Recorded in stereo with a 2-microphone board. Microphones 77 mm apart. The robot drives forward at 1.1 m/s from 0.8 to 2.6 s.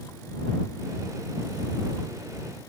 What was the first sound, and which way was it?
Only background noise.